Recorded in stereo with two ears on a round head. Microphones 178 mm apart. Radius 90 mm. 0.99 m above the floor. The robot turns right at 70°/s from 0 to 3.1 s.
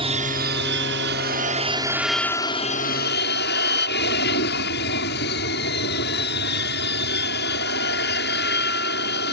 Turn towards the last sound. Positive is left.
turn(degrees=70)